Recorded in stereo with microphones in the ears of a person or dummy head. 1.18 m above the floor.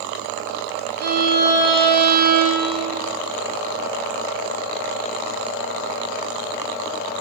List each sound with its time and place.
1.0 s a violin: 55° right (ahead or behind), 0.8 m